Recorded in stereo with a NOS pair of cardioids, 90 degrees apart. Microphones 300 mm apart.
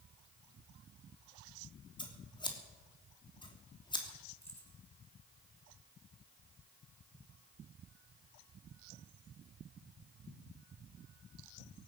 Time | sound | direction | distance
2.0 | scissors | 15° left | 3 m
4.4 | keys jangling | 5° left | 9 m